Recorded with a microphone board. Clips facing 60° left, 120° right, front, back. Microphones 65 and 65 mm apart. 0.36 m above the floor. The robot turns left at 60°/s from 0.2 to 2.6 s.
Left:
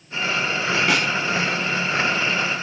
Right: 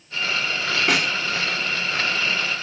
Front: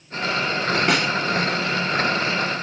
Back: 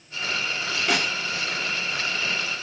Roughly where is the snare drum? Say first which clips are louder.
Right 1 dB, front 1 dB; ahead right.